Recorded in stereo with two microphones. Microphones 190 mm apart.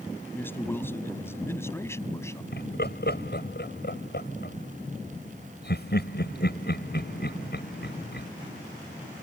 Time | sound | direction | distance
0.3 | a man speaking | 10° left (ahead or behind) | ?
2.5 | laughter | 60° left (ahead or behind) | ?